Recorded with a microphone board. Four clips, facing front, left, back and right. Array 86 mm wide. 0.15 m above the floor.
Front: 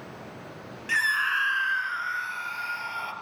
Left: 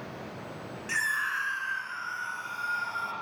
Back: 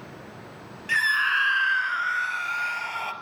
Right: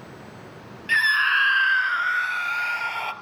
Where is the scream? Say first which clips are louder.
Right 10 dB, back 2 dB; 95° right, 1.0 m; by 3.1 s 105° right, 2.5 m.